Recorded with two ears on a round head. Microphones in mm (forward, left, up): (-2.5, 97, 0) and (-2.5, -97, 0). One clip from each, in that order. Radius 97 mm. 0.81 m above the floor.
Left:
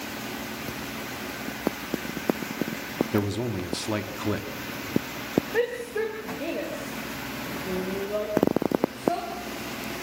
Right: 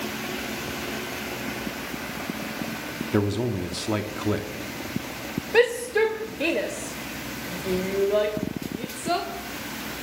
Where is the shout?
80° right, 2.5 m.